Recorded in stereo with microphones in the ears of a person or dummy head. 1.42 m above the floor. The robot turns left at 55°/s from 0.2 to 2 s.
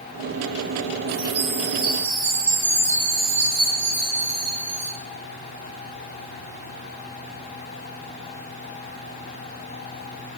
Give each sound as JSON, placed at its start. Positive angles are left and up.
{"t": 1.1, "sound": "a chime", "azimuth_deg": -135, "distance_m": 3.5}